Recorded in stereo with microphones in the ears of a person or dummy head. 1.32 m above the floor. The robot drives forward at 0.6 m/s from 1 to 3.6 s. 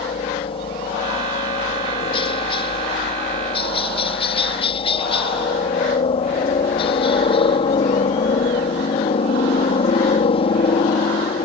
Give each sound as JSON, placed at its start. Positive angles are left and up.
{"t": 0.0, "sound": "a helicopter", "side_deg": 25}